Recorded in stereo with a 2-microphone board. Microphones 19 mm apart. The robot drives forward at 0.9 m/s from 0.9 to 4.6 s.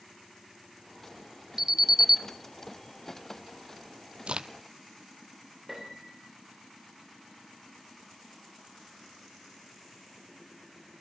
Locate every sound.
1.6 s an alarm: 20° right (ahead or behind), 1.0 m; by 2.2 s 25° right (ahead or behind), 0.8 m
4.3 s a crack: 60° right (ahead or behind), 0.9 m; by 4.5 s 50° right (ahead or behind), 1.0 m
5.7 s a piano: 10° right (ahead or behind), 7.5 m